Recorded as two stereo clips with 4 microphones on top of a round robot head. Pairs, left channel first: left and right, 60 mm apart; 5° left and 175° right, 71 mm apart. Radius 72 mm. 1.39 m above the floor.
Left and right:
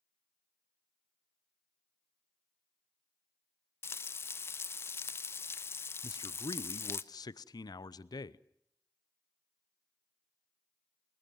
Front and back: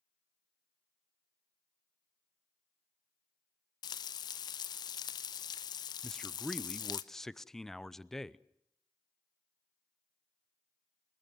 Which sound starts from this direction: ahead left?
Frying, at 3.8 s.